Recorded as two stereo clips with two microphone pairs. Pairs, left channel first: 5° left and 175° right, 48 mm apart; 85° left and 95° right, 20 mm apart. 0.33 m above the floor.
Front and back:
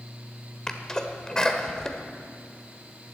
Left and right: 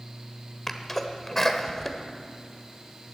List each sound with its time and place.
0.7 s a sneeze: 55° left, 1.2 m